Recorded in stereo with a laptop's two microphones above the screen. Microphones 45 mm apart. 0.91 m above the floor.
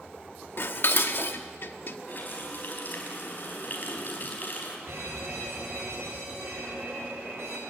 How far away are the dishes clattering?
About 1.2 m.